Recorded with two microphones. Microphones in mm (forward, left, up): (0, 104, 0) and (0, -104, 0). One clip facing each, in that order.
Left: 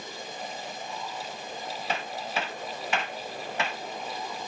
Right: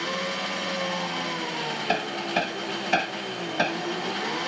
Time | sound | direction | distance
0.0 | an engine running | 75° right (ahead or behind) | ?
1.9 | hammering | 40° right (ahead or behind) | ?